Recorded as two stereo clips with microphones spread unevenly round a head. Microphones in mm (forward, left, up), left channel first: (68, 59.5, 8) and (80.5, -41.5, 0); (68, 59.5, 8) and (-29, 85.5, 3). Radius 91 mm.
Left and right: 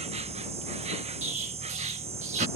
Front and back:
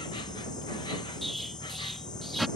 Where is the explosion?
105° right.